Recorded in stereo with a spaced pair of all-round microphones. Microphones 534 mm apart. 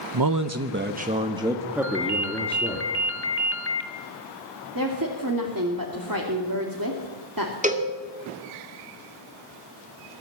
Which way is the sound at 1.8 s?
20° left (ahead or behind).